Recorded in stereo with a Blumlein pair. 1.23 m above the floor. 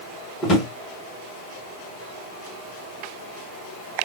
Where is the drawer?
25° left, 1.2 m.